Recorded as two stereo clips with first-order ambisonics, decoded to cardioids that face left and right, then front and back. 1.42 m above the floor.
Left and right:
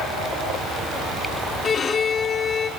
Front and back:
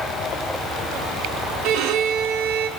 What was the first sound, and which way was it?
A violin, 160° left.